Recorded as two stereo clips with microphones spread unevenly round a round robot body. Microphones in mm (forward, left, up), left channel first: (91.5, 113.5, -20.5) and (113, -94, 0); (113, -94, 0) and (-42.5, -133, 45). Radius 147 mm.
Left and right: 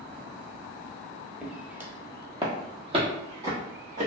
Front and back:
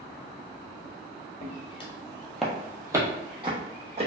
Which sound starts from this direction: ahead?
Footsteps, at 1.4 s.